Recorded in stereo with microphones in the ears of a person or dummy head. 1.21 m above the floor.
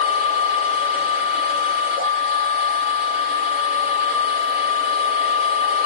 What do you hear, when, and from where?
0.0 s a machine running: 30° left (ahead or behind), 2.5 m